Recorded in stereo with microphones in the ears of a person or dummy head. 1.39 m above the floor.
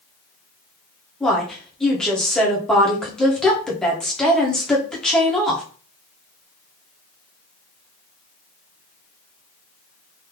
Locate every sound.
1.2 s a woman speaking: 5° left (ahead or behind), 1.2 m